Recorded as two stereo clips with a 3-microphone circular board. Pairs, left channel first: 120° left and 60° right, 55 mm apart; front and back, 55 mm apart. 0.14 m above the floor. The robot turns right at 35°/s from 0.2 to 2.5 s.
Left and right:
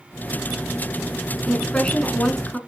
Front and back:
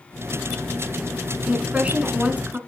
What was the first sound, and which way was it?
A woman speaking, 150° left.